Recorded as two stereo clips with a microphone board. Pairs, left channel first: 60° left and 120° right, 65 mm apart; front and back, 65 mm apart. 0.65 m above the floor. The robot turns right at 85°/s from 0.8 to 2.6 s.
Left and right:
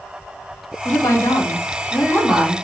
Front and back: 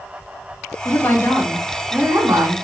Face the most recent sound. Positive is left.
turn(degrees=175)